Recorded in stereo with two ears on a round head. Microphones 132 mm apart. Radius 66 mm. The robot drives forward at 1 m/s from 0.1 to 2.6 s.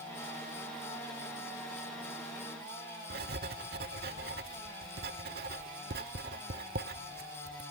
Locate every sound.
3.1 s writing: 75° right (ahead or behind)